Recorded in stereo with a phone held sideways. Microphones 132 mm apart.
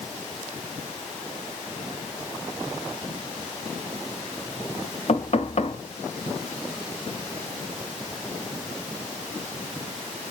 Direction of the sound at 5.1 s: 60° left (ahead or behind).